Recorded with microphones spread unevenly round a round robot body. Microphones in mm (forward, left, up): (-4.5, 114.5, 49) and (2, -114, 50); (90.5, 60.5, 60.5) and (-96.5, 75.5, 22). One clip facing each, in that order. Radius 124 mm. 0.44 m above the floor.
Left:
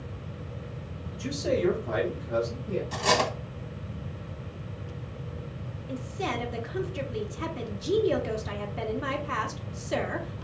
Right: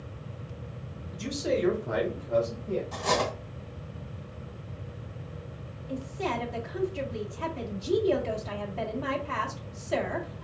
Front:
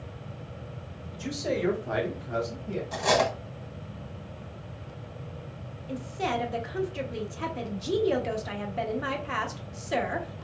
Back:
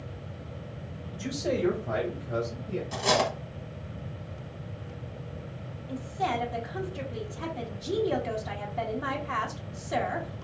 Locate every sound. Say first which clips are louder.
1.1 s a man speaking: left 1 dB, even; 145° right, 1.2 m; by 2.8 s 10° left, 1.8 m
2.9 s cutlery clinking: left 2 dB, front 2 dB; 120° left, 0.9 m
5.9 s a woman speaking: right 1 dB, front 1 dB; 50° left, 0.8 m